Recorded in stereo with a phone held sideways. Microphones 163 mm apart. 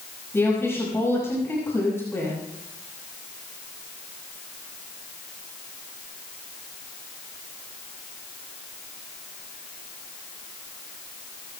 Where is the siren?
No siren in this recording.